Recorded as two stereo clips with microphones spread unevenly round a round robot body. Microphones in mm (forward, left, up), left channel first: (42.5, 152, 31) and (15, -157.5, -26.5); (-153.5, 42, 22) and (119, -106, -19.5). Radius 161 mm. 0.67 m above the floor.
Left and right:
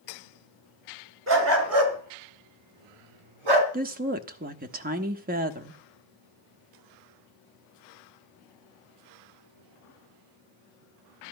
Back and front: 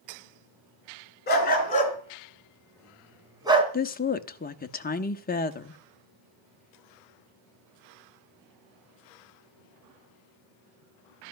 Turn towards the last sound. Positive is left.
turn(degrees=-145)